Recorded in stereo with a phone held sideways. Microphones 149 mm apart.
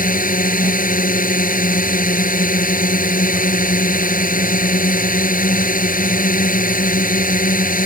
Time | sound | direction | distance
0.0 | a drone | 60° left (ahead or behind) | ?